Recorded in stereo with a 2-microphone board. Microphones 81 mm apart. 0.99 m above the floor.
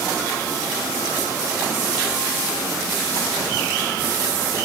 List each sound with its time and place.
Only background noise.